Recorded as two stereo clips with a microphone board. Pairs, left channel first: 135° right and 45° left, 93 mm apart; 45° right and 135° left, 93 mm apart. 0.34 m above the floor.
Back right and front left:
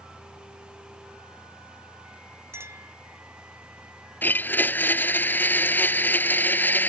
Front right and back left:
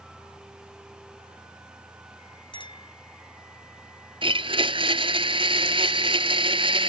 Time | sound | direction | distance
2.5 | a clink | 15° right | ?
4.2 | a blender | 155° left | ?